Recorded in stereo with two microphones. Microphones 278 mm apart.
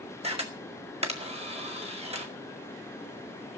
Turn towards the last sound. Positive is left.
turn(degrees=-20)  # may be behind; listen again after turning